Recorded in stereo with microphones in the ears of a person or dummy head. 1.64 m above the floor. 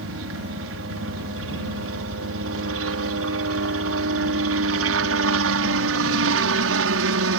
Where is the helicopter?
70° right (ahead or behind); by 7.4 s 75° right (ahead or behind).